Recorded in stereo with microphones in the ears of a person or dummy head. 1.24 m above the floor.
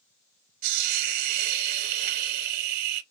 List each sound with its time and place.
0.6 s a hiss: 45° right (ahead or behind), 0.7 m